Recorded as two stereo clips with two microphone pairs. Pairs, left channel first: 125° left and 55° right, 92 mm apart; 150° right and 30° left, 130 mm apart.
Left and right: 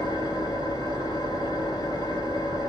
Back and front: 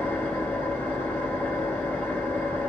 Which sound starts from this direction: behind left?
An engine running, at 0.0 s.